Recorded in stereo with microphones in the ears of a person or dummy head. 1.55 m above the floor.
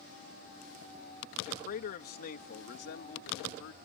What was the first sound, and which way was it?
A man speaking, 50° left (ahead or behind).